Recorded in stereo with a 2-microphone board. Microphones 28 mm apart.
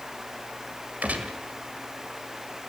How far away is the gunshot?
About 2.5 m.